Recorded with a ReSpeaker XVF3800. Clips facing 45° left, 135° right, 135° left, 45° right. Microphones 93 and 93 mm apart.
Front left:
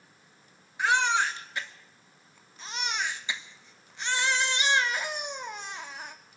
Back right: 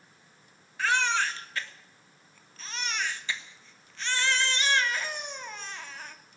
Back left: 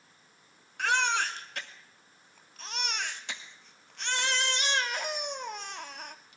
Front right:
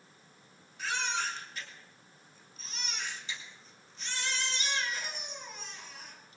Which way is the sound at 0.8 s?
115° left.